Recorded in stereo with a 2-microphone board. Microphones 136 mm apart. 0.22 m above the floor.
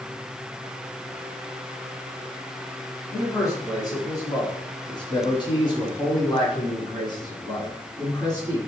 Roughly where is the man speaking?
Left.